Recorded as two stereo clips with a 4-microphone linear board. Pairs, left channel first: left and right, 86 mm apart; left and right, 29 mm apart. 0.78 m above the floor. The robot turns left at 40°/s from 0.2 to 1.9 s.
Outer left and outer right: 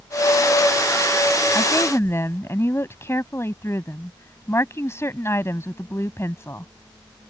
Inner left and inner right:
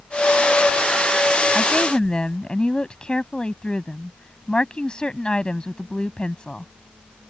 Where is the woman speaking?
45° left (ahead or behind); by 6.7 s 30° left (ahead or behind).